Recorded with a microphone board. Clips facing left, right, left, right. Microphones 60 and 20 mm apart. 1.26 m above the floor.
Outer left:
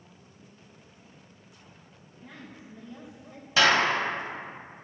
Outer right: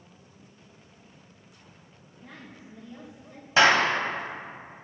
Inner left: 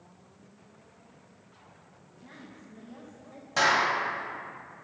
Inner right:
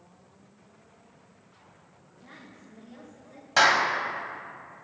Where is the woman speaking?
5° left (ahead or behind), 1.7 m; by 3.5 s 20° left (ahead or behind), 1.1 m.